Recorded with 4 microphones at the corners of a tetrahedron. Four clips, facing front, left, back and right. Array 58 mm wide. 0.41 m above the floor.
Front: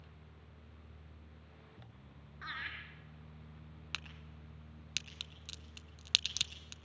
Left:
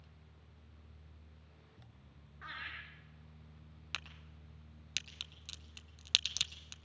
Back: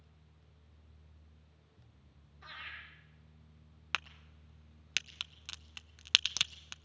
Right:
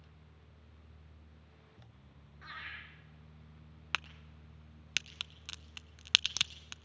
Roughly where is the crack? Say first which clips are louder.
Right 7 dB, back 7 dB; behind right.